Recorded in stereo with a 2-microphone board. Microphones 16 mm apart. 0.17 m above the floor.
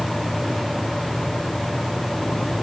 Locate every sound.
Only background noise.